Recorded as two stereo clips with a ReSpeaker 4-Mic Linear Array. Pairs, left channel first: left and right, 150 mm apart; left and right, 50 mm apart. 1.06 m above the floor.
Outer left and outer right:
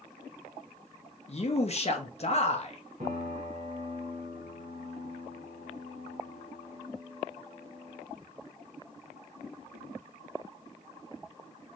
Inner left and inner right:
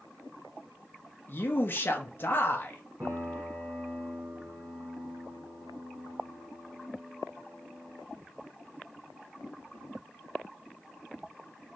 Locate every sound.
1.3 s a man speaking: 45° left (ahead or behind), 0.9 m
3.0 s a piano: 70° right (ahead or behind), 2 m